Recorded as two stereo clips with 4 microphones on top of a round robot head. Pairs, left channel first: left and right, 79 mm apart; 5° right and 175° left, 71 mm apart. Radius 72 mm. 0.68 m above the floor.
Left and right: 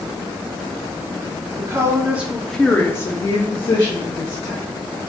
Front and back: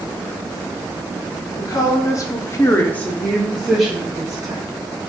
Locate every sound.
1.6 s a woman speaking: 40° right, 1.1 m; by 4.6 s 95° left, 1.5 m